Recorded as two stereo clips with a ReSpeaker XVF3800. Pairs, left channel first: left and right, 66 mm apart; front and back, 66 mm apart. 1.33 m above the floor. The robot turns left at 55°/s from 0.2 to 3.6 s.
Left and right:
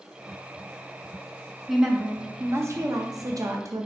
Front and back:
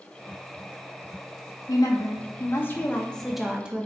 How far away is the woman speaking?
About 0.7 m.